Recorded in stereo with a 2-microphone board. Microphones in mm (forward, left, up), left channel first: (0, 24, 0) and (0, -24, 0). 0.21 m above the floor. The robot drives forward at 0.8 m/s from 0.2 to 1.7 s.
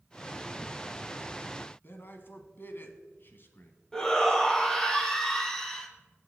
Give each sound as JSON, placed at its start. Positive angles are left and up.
{"t": 1.8, "sound": "a man speaking", "side_deg": 45, "distance_m": 1.5}
{"t": 3.9, "sound": "a shout", "side_deg": 10, "distance_m": 2.0}